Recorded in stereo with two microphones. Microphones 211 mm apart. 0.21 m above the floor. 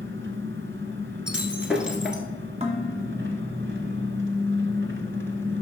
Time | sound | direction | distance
0.0 | an engine running | 65° right (ahead or behind) | 1.1 m
1.3 | breaking glass | 5° right (ahead or behind) | 1.4 m
2.6 | dishes clattering | 30° right (ahead or behind) | 1.3 m